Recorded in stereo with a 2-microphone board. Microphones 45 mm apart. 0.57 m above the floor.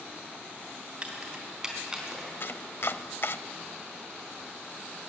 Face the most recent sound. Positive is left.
turn(degrees=55)  # may be behind; listen again after turning